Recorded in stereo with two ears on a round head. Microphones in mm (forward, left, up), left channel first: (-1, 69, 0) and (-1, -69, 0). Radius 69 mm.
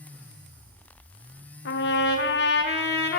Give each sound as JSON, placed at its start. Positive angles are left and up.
{"t": 1.6, "sound": "a trumpet", "side_deg": 80, "distance_m": 0.6}